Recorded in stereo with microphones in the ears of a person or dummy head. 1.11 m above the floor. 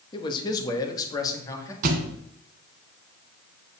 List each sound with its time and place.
0.1 s a man speaking: 25° left (ahead or behind), 1.8 m; by 1.7 s 20° left (ahead or behind), 2.5 m
1.8 s a thud: 45° right (ahead or behind), 1.8 m